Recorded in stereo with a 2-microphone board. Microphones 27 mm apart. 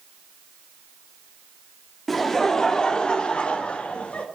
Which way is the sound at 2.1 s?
5° left (ahead or behind).